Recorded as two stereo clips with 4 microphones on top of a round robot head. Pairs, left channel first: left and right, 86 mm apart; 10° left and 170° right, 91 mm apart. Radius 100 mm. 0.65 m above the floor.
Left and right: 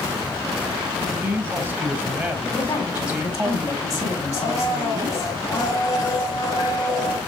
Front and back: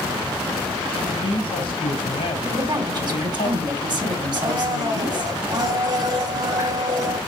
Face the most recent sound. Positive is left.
turn(degrees=145)